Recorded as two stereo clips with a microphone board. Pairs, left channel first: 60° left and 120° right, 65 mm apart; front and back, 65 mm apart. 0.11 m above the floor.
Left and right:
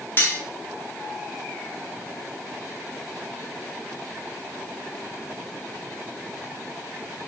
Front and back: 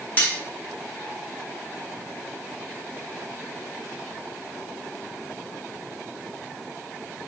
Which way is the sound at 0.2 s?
35° left.